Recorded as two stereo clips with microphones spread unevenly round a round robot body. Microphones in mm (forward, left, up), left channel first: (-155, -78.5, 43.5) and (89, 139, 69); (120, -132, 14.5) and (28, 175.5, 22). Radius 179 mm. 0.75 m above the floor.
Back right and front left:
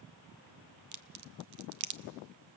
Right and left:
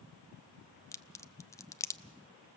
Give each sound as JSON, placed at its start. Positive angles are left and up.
{"t": 0.9, "sound": "a crack", "azimuth_deg": 5, "distance_m": 0.9}